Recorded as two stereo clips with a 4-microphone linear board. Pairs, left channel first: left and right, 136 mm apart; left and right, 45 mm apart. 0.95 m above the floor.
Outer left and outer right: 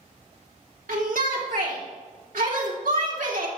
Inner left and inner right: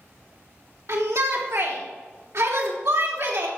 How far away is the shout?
About 3 m.